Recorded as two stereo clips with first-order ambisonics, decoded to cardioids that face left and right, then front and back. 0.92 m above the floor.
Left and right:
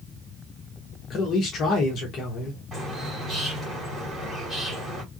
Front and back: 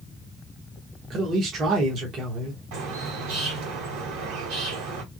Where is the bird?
165° right, 2 m.